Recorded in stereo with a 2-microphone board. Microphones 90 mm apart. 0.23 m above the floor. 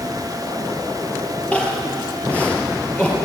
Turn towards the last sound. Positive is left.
turn(degrees=15)  # may be behind; listen again after turning